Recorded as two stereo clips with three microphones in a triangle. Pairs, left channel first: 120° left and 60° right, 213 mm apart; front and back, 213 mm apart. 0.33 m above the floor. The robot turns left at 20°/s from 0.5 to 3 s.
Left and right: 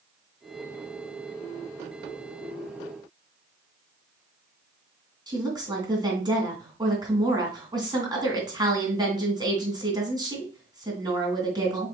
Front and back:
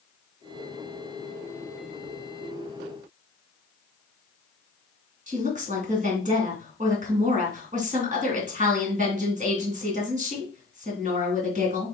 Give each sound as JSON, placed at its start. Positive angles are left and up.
{"t": 5.3, "sound": "a woman speaking", "azimuth_deg": -130, "distance_m": 2.5}